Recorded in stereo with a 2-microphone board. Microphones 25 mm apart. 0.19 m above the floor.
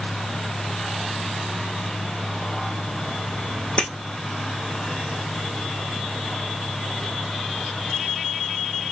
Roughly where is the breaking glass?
Left.